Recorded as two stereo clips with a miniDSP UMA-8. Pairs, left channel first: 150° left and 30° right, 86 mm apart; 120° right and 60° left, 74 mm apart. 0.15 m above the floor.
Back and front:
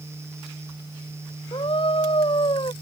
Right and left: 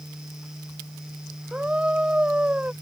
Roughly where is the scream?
Behind left.